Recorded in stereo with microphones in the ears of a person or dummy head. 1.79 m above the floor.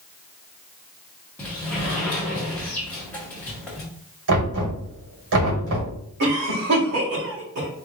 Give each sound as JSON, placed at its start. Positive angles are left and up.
{"t": 1.4, "sound": "a sliding door", "side_deg": 5, "distance_m": 1.3}
{"t": 4.3, "sound": "knocking", "side_deg": -65, "distance_m": 2.0}
{"t": 6.2, "sound": "a cough", "side_deg": -60, "distance_m": 1.9}